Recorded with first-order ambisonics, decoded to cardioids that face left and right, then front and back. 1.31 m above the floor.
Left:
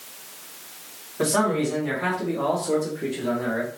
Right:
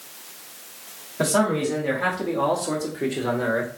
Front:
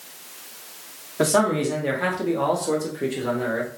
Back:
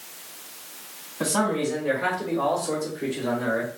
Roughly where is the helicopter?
I don't hear a helicopter.